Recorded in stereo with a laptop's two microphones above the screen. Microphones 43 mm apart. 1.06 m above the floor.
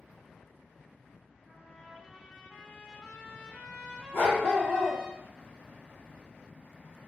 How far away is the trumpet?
About 0.6 m.